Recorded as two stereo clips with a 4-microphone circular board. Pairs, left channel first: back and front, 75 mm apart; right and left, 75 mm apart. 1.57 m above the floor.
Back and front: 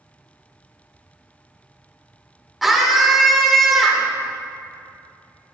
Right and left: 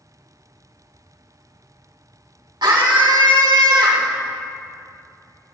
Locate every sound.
2.6 s a scream: 90° left, 2 m